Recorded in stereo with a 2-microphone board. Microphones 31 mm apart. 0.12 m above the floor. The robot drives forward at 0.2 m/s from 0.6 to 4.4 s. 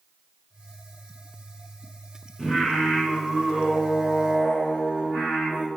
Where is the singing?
15° right (ahead or behind), 1.3 m; by 5.7 s 10° right (ahead or behind), 1.7 m.